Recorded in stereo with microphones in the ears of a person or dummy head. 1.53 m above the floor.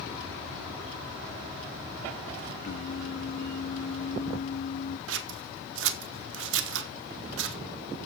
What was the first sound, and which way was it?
Singing, 55° left (ahead or behind).